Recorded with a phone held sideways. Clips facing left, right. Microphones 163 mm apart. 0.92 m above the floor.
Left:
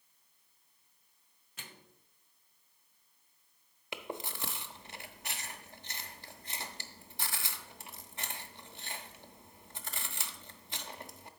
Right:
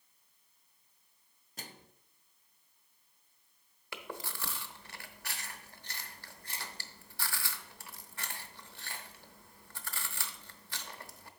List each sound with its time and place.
1.6 s a microwave: 40° right (ahead or behind), 0.6 m
3.9 s chewing: 20° left (ahead or behind), 0.7 m